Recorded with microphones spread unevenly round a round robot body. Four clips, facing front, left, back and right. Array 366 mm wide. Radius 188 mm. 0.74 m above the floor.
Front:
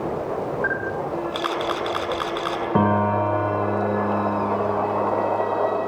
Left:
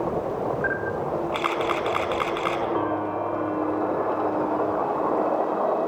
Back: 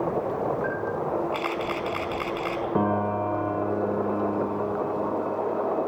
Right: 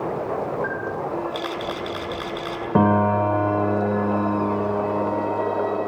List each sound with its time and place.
0.6 s a camera shutter: 70° left, 5.5 m
2.8 s a piano: 55° right, 0.8 m